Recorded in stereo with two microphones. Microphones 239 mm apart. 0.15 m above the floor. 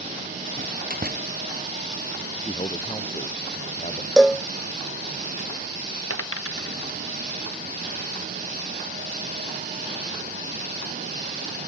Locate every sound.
0.6 s a door slam: 35° right (ahead or behind)
2.5 s a man speaking: 25° left (ahead or behind)
4.2 s a cowbell: centre (ahead or behind)
6.1 s a dropped coin: 65° left (ahead or behind)